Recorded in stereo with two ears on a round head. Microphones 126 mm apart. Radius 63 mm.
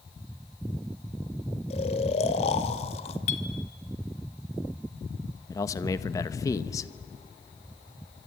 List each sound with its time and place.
1.7 s snoring: 45° left (ahead or behind), 1.6 m
3.3 s a clink: 55° left (ahead or behind), 2.0 m
5.5 s a man speaking: 25° left (ahead or behind), 0.9 m